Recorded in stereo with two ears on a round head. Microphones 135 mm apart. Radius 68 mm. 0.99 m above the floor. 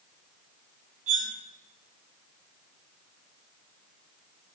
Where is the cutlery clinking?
55° right (ahead or behind), 4.5 m.